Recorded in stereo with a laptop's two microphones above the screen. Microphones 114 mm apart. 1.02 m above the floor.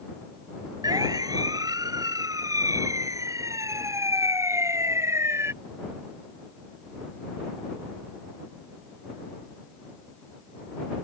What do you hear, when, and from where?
0.8 s a siren: 35° right (ahead or behind); by 5.5 s 25° right (ahead or behind)